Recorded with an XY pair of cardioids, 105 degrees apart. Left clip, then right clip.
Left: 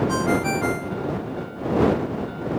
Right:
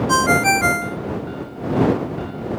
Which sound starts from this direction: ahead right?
A ringtone, at 0.1 s.